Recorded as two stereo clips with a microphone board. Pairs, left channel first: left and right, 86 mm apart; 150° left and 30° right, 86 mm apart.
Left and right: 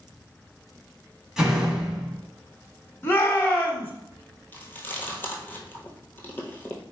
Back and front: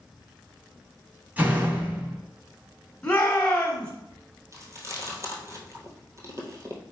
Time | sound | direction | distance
1.4 | a door slam | 25° right | 1.0 m
3.0 | a shout | 95° left | 1.1 m
4.5 | chewing | 20° left | 1.2 m